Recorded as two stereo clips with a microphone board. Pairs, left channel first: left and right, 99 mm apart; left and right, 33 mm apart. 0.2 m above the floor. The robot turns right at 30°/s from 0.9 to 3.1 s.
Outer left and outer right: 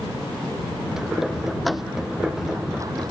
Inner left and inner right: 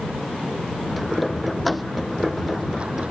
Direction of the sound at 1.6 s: Centre (ahead or behind).